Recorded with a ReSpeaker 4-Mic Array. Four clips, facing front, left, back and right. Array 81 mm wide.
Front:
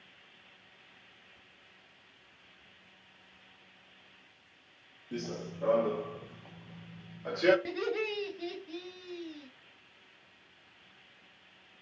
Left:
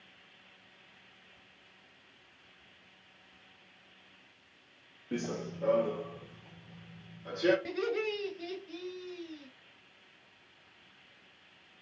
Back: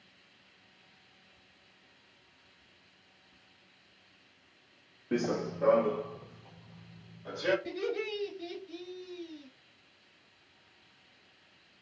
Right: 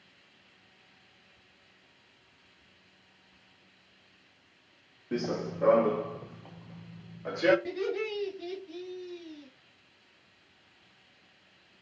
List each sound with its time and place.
5.1 s running footsteps: 170° right, 0.5 m; by 7.5 s 60° right, 1.7 m
7.7 s laughter: 15° left, 1.6 m